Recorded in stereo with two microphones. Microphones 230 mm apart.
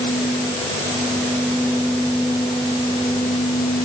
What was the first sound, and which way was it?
Only background noise.